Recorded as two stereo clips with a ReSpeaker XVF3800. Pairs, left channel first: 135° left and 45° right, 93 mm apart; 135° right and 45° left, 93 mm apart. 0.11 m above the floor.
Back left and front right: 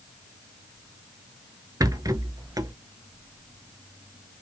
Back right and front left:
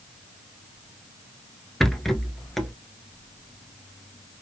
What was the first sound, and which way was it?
A rattle, 50° right.